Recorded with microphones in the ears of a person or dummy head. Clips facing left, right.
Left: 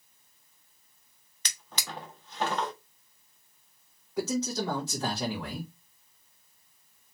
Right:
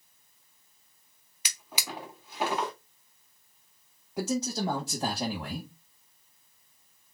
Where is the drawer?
5° right (ahead or behind), 0.6 m.